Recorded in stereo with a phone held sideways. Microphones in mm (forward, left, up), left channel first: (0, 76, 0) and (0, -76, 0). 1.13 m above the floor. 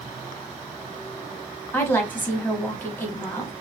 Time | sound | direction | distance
1.7 | a woman speaking | 15° left (ahead or behind) | 0.9 m